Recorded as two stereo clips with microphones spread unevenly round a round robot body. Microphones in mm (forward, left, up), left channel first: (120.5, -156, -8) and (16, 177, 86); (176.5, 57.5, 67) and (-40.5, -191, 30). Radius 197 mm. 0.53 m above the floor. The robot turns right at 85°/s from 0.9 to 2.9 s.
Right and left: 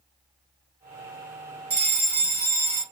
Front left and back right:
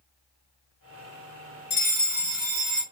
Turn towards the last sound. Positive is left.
turn(degrees=-165)